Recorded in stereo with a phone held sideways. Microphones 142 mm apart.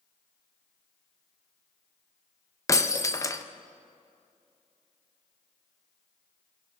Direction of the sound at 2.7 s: 20° left (ahead or behind).